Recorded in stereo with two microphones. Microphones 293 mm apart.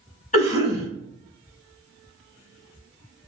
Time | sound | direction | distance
0.3 | a cough | 25° left (ahead or behind) | 1.0 m